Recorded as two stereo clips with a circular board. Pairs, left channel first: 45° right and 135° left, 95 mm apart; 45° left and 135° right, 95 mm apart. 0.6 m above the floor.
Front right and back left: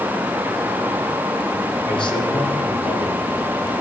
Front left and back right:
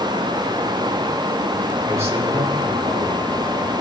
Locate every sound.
1.9 s a man speaking: 75° right, 9 m